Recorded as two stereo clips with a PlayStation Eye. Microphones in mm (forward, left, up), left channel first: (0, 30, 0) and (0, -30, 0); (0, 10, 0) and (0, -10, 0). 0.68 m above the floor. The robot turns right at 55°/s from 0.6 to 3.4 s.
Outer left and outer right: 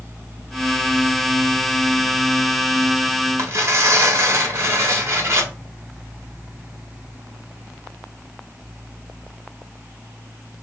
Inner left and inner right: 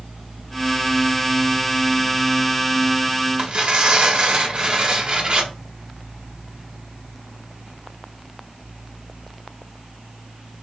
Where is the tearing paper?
50° right (ahead or behind), 1.3 m.